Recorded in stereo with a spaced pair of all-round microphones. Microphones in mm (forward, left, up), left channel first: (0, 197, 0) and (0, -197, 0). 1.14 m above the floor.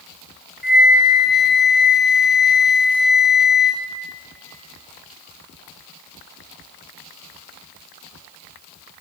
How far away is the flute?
About 0.7 m.